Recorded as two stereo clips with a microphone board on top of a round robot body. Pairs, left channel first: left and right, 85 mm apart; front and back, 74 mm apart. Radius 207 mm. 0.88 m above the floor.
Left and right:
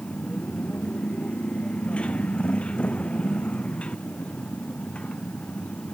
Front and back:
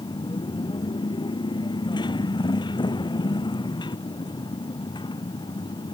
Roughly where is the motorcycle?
Ahead.